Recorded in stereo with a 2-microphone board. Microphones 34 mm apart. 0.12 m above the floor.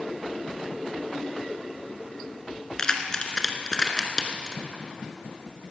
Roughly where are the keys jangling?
Left.